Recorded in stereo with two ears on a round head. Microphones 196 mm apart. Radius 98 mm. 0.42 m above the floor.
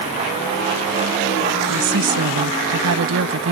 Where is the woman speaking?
70° right (ahead or behind).